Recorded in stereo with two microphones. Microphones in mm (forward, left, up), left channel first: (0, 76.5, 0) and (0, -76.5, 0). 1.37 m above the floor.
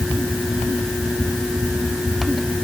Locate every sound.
Only background noise.